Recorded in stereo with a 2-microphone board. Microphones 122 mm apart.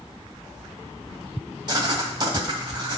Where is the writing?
35° right (ahead or behind), 1.3 m.